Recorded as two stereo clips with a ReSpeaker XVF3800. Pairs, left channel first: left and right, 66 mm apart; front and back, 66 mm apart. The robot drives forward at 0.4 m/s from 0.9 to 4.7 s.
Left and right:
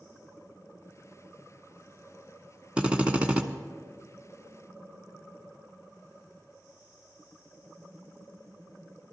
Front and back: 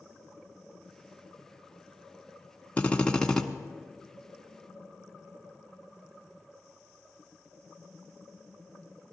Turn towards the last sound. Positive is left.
turn(degrees=-140)